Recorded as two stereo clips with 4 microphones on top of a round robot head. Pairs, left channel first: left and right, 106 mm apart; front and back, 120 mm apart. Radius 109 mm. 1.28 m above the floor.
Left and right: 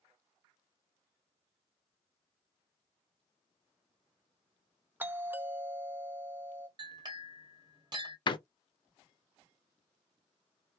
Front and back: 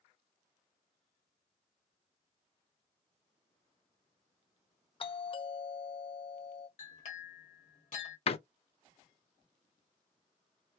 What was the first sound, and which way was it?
A doorbell, 20° right.